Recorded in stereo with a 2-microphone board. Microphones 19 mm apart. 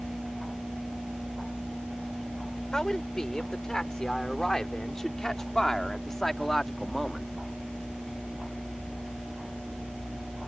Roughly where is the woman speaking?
Left.